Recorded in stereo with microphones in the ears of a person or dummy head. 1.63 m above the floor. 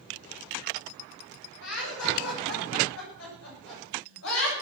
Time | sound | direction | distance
1.6 | laughter | 75° left (ahead or behind) | 7.5 m